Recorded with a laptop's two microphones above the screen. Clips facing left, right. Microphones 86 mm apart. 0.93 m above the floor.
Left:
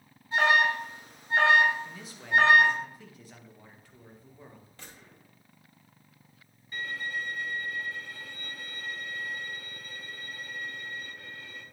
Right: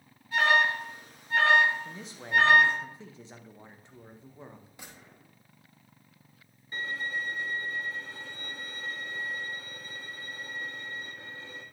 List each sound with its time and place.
0.3 s an alarm: 25° left (ahead or behind), 4.5 m
1.9 s a man speaking: 25° right (ahead or behind), 0.8 m
4.8 s a gunshot: 15° right (ahead or behind), 1.6 m
6.7 s a violin: 25° right (ahead or behind), 1.2 m